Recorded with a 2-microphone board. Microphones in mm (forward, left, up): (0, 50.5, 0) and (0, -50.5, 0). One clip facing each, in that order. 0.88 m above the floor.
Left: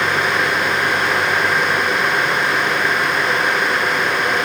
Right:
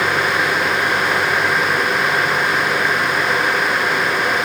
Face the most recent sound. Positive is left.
No sound to turn to.